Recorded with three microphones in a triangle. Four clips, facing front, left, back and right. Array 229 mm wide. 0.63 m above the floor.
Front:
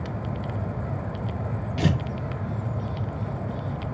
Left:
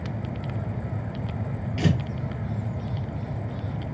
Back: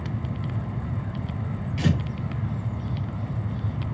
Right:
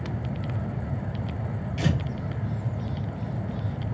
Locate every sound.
1.8 s tearing paper: 25° left, 0.8 m